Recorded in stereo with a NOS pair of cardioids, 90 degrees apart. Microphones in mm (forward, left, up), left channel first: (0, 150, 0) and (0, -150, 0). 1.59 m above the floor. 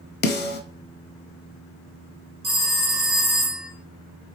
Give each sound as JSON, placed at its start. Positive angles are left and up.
{"t": 0.2, "sound": "a snare drum", "azimuth_deg": 35, "distance_m": 0.8}
{"t": 2.4, "sound": "a phone ringing", "azimuth_deg": -20, "distance_m": 1.4}